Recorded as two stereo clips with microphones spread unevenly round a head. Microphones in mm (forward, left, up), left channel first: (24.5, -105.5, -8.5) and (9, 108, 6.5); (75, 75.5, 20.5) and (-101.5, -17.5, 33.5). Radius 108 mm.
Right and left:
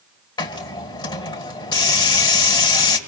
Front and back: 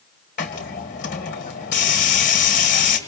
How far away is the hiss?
About 2 m.